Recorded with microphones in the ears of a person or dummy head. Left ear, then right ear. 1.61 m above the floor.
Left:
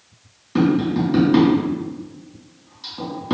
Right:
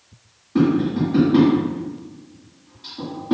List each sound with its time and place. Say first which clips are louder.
0.6 s tapping: even; 75° left (ahead or behind), 1.9 m